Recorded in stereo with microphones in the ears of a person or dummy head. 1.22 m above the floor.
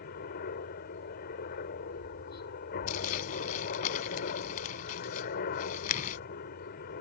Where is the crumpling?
45° left (ahead or behind).